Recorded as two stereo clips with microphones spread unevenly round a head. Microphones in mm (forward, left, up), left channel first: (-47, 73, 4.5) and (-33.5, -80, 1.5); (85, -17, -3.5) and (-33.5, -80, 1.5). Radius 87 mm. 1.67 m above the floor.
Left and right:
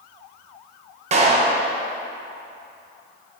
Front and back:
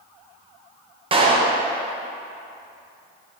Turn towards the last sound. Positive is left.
turn(degrees=-120)